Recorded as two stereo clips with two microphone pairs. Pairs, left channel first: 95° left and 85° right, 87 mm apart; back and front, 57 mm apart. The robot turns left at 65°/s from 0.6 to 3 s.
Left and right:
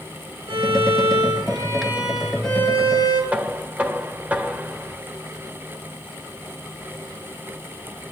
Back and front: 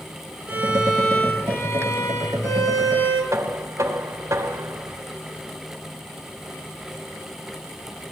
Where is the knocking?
15° right, 1.6 m.